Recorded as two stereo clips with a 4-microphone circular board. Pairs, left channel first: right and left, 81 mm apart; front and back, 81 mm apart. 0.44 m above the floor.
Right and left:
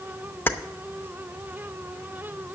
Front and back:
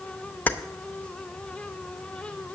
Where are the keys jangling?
50° right, 0.6 m.